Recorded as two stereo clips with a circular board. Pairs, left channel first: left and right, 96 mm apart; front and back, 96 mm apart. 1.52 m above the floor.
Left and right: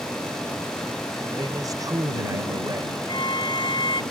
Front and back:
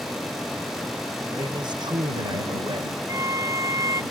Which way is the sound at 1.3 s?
140° right.